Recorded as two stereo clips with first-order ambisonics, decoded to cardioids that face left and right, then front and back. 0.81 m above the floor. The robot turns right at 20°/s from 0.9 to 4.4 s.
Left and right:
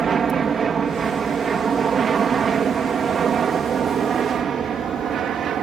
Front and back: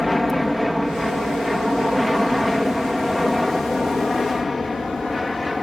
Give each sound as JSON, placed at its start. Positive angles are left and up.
{"t": 0.0, "sound": "an aircraft", "azimuth_deg": -75}